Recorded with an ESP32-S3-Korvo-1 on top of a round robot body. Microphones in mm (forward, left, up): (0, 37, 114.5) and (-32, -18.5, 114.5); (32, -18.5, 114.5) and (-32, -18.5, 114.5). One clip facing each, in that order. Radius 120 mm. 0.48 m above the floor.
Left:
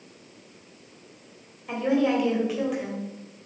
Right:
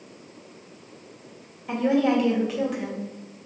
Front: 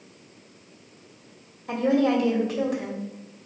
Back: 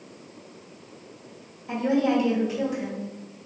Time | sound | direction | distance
1.7 | a woman speaking | 25° right | 2.5 m